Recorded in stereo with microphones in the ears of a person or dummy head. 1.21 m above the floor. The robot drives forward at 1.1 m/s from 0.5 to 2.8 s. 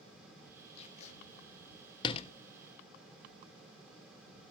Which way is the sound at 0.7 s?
40° left (ahead or behind).